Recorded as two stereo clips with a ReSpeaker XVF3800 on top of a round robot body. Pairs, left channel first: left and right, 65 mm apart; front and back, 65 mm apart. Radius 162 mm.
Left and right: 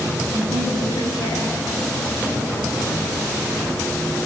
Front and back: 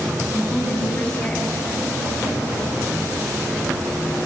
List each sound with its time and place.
0.3 s a woman speaking: 80° left, 6.5 m